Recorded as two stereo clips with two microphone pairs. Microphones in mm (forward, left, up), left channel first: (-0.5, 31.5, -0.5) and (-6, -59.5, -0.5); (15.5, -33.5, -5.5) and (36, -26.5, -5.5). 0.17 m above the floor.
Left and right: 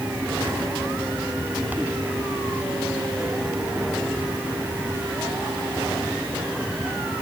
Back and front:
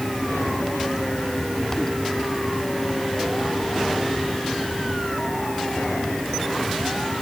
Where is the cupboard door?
No cupboard door in this recording.